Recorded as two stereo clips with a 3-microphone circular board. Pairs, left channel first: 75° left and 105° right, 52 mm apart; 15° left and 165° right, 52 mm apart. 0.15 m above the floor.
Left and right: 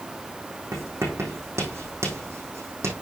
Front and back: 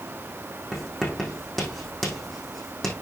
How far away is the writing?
About 4 m.